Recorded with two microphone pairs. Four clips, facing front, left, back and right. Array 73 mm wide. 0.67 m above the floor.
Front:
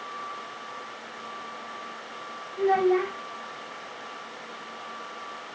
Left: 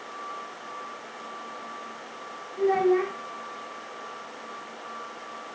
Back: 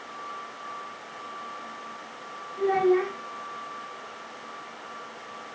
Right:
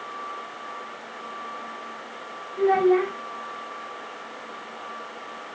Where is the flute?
No flute in this recording.